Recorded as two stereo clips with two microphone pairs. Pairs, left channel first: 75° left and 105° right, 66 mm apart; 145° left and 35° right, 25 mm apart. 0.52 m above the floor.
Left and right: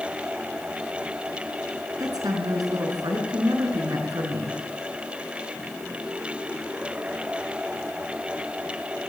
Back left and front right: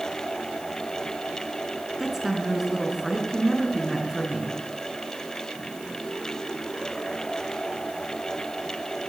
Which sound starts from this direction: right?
A woman speaking, at 2.0 s.